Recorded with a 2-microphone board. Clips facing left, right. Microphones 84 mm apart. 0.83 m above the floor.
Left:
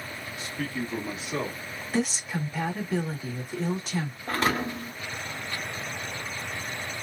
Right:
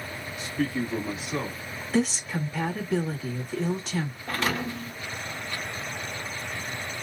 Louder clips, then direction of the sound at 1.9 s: Right 3 dB; 5° left (ahead or behind).